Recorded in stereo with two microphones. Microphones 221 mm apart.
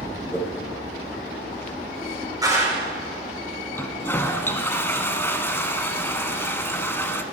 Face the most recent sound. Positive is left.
turn(degrees=10)  # may be behind; listen again after turning